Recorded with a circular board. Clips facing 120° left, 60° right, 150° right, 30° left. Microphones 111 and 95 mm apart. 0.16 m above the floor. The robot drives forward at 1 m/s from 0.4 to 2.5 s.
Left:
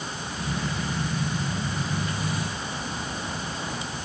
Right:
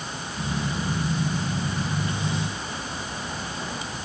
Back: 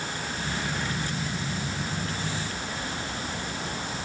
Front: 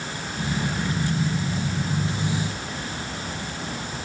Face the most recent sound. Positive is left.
No sound to turn to.